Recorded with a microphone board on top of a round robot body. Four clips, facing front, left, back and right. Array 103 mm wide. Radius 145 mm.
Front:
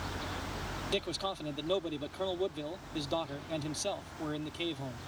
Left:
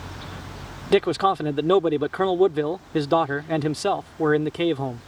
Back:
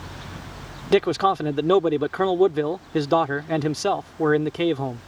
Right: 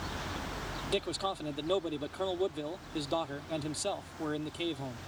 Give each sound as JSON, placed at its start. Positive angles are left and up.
{"t": 0.9, "sound": "a man speaking", "azimuth_deg": 140}